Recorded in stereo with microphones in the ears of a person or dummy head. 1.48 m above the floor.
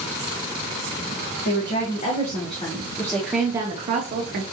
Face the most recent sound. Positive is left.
turn(degrees=-55)  # may be behind; listen again after turning